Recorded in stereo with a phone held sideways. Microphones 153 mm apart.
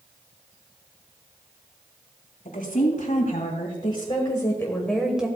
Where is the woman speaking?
60° left (ahead or behind), 3 m; by 5.3 s 10° right (ahead or behind), 1.5 m.